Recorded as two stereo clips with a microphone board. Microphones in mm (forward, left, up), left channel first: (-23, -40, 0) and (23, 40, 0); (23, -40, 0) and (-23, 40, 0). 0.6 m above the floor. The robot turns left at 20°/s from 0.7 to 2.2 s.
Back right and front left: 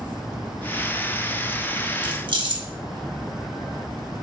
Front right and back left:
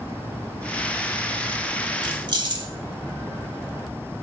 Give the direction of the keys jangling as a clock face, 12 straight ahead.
9 o'clock.